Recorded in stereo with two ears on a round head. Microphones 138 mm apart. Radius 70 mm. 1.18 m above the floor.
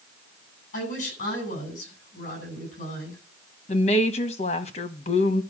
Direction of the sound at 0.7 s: 55° left (ahead or behind).